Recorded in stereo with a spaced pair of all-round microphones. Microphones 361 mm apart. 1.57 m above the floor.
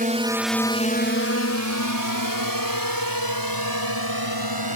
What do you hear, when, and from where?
0.0 s a drone: 25° right (ahead or behind); by 4.8 s 80° left